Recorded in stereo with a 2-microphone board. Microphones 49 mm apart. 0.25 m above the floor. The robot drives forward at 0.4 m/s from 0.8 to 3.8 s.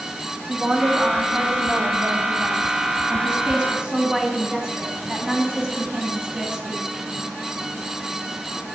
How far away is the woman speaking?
About 1.4 m.